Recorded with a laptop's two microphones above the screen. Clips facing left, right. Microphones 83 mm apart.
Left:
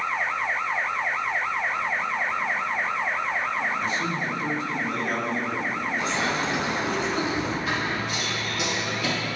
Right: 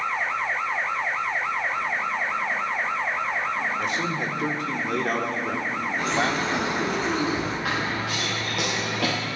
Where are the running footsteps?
80° right, 6.5 m; by 9.1 s 70° right (ahead or behind), 6 m.